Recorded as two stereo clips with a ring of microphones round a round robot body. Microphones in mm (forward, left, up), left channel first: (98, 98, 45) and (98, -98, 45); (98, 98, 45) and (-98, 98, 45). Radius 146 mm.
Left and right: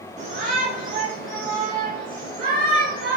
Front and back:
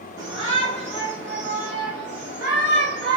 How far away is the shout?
About 1.4 m.